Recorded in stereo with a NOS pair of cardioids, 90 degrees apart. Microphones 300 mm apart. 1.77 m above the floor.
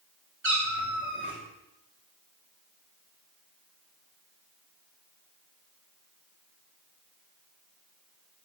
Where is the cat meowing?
45° right, 4 m.